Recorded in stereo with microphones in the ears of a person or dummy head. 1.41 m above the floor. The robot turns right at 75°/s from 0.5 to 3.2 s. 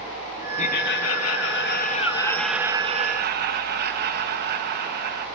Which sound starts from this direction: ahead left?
Laughter, at 0.6 s.